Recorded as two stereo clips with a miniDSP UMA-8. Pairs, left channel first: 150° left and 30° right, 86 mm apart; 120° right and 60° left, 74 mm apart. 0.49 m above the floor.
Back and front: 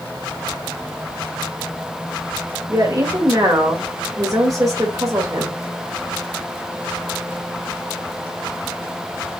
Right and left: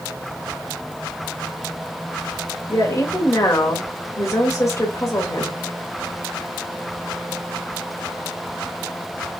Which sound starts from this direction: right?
A woman speaking, at 2.7 s.